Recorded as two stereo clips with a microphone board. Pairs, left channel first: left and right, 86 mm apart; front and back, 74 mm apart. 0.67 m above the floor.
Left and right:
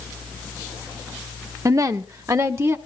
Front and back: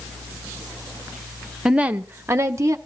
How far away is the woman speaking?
About 0.7 m.